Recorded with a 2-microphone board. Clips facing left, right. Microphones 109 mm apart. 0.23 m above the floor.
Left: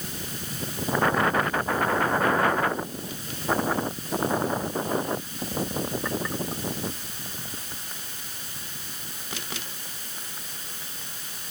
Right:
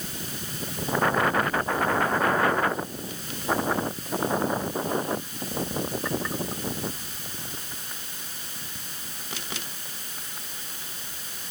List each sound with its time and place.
Only background noise.